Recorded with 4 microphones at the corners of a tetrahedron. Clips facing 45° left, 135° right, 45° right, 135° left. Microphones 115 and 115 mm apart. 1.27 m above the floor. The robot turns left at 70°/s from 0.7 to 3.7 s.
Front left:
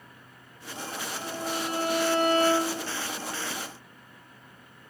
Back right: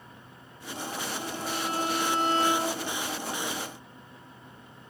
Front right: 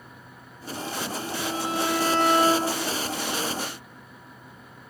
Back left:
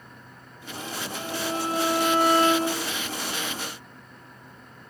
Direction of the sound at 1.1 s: 125° left.